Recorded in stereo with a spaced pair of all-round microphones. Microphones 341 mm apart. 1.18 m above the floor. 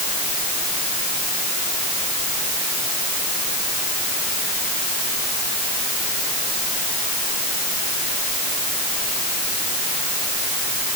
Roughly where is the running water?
No running water in this recording.